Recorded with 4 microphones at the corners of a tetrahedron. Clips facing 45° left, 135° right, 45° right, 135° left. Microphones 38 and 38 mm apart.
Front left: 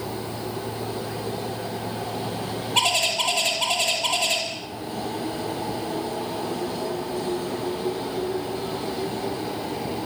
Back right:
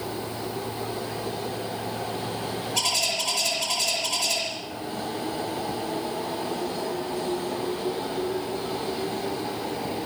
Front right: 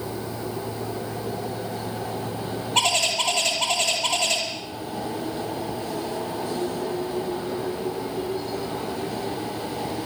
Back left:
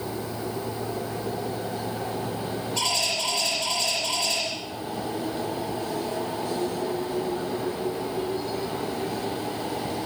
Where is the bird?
5° right, 7.5 m.